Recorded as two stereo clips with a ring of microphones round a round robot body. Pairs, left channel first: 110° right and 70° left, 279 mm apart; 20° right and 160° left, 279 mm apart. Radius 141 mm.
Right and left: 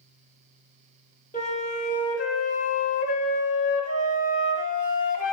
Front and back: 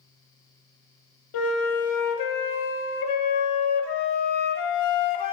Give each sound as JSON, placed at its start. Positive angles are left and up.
{"t": 1.3, "sound": "a flute", "azimuth_deg": -50, "distance_m": 0.9}